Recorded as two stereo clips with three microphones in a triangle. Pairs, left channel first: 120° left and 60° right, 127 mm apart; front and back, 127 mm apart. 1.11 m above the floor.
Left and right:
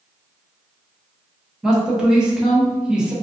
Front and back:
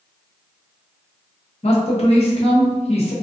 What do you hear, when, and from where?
1.6 s a man speaking: 25° left, 0.8 m